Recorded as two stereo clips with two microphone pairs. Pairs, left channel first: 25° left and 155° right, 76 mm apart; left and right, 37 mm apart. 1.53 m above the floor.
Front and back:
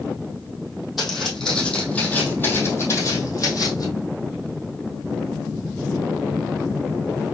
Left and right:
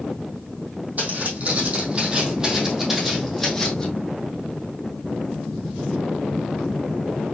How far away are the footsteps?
About 2.5 m.